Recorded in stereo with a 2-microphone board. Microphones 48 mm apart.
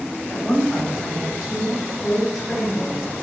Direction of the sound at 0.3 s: 10° left (ahead or behind).